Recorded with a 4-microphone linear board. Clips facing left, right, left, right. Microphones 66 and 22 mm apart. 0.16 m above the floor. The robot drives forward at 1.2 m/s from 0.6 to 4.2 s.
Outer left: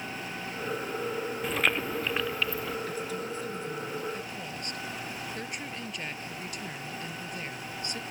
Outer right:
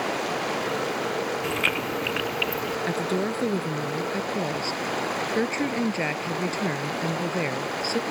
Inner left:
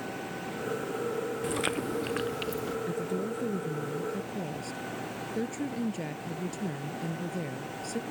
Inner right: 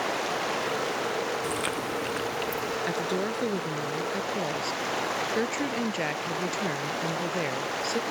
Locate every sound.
0.0 s running water: 75° right (ahead or behind); by 8.1 s 70° right (ahead or behind)
1.4 s chewing: centre (ahead or behind)
2.9 s a woman speaking: 60° right (ahead or behind); by 8.0 s 45° right (ahead or behind)